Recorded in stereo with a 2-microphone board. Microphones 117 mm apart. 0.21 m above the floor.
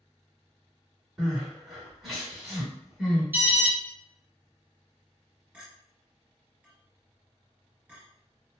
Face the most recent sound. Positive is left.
turn(degrees=-10)  # may be behind; listen again after turning